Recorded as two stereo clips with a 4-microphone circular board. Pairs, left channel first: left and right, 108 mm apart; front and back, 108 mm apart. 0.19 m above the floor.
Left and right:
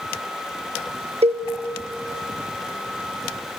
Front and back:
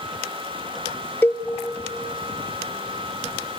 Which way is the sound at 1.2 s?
70° right.